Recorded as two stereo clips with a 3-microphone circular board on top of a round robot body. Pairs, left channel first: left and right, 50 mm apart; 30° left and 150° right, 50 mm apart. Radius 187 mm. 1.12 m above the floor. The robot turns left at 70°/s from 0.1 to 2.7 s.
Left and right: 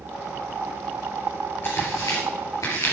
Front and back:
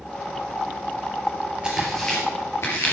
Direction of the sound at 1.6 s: 135° left.